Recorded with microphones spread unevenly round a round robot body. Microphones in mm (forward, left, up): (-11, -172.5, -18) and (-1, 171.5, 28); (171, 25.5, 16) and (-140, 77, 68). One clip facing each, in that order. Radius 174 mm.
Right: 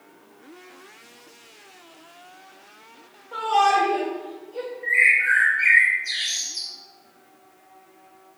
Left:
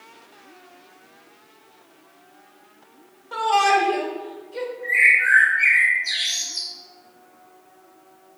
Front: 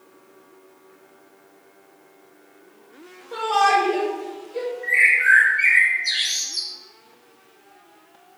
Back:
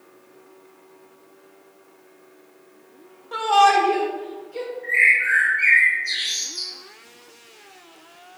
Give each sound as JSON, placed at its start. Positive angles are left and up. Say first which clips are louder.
{"t": 3.3, "sound": "a shout", "louder": "left 2 dB, back 2 dB", "azimuth_deg": 105, "distance_m": 1.9}
{"t": 4.8, "sound": "a bird", "louder": "left 2 dB, front 1 dB", "azimuth_deg": 10, "distance_m": 2.5}